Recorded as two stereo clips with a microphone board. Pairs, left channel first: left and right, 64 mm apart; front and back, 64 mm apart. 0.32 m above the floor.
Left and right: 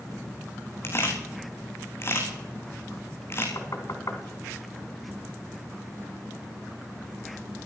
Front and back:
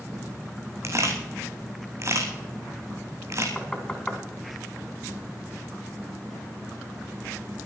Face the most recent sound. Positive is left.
turn(degrees=80)